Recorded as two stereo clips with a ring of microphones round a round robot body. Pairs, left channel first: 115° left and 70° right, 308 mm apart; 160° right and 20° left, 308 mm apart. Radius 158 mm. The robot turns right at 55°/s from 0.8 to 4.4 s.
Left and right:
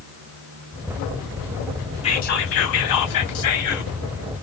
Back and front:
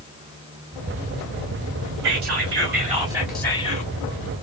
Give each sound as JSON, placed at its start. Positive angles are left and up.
{"t": 2.0, "sound": "whispering", "azimuth_deg": 40, "distance_m": 2.5}